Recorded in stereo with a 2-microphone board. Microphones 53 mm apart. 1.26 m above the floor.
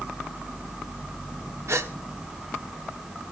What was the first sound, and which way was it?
A gasp, 65° right (ahead or behind).